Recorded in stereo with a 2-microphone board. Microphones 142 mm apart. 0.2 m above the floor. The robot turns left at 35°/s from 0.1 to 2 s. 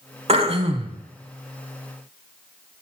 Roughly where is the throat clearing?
Right.